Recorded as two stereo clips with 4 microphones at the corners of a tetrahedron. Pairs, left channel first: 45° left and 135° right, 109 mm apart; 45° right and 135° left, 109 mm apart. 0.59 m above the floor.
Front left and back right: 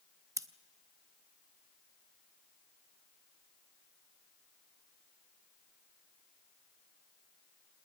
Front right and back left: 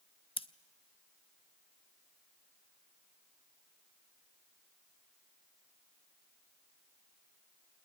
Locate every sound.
0.4 s scissors: 75° right, 0.6 m